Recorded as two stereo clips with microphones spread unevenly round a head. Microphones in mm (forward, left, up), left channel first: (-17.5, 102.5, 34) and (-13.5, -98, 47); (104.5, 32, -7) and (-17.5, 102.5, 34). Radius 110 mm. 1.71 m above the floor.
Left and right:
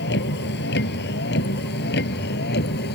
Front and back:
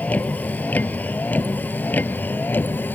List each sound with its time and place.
0.0 s a vehicle: 50° left